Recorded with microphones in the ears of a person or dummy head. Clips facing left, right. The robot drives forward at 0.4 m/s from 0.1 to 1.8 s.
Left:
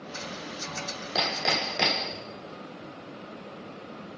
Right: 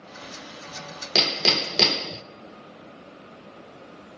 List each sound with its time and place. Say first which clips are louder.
1.1 s hammering: right 3 dB; 40° right (ahead or behind), 1.0 m; by 2.2 s 50° right (ahead or behind), 0.8 m